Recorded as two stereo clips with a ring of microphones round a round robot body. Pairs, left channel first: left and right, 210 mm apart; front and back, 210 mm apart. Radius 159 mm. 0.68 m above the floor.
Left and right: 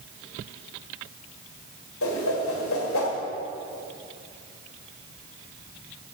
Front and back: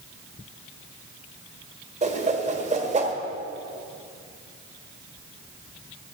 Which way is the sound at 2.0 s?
120° left.